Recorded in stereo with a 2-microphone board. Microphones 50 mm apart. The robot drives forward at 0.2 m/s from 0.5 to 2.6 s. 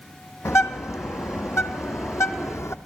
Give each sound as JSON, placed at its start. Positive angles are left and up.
{"t": 0.5, "sound": "a bird", "side_deg": 75, "distance_m": 1.2}